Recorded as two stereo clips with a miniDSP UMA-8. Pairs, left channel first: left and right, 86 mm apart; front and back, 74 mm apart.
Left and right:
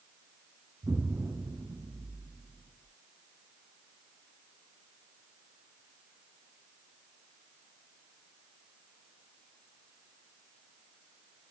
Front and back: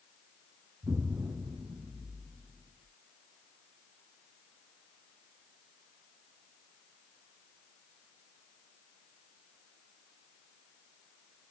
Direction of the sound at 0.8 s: 145° right.